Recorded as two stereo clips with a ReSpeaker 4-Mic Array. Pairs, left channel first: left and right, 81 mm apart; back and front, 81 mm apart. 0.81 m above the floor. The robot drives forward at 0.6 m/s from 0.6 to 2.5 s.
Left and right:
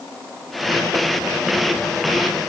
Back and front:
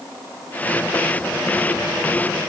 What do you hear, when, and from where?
Only background noise.